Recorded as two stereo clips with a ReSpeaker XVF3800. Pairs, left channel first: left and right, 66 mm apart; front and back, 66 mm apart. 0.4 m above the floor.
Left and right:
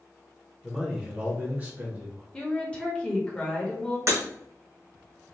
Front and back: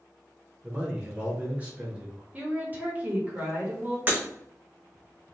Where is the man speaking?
Straight behind, 0.9 m; by 2.2 s 120° right, 1.3 m.